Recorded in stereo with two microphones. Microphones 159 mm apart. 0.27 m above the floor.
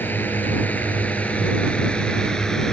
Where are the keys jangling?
I don't hear keys jangling.